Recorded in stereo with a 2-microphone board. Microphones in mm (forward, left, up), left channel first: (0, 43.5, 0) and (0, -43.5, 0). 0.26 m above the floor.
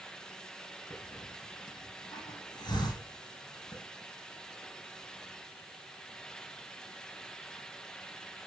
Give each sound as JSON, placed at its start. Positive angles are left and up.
{"t": 0.9, "sound": "a hiss", "side_deg": 55, "distance_m": 6.0}